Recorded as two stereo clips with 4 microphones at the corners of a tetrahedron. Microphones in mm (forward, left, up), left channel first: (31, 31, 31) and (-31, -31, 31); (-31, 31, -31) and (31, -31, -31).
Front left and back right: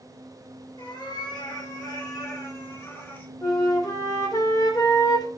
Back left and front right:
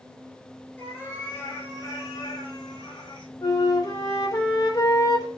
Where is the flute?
85° left, 2.5 m.